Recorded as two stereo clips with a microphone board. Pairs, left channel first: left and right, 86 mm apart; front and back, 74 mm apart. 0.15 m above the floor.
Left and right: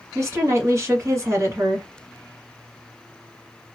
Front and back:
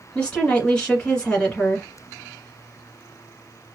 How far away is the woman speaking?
About 1.3 m.